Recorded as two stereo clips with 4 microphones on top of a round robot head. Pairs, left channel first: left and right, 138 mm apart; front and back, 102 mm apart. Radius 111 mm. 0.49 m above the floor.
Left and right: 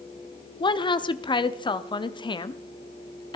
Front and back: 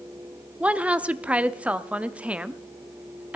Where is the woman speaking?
110° left, 0.8 m.